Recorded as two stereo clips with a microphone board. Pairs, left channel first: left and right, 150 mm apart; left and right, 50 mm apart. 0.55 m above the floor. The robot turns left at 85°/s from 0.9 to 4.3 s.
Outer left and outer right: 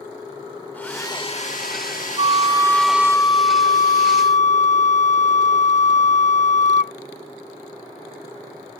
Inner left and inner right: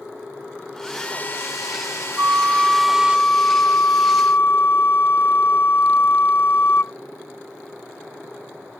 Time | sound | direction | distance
0.7 | a hair dryer | 170° left | ?
2.2 | a flute | 115° right | ?